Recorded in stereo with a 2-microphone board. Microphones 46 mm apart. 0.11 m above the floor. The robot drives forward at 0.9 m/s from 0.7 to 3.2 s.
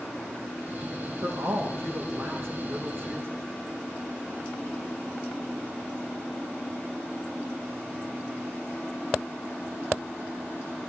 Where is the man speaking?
70° right (ahead or behind), 5.5 m; by 3.4 s 55° right (ahead or behind), 6 m.